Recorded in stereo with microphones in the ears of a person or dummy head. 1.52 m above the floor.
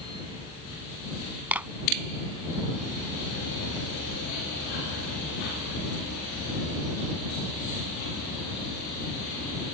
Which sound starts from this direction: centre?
A clap, at 1.5 s.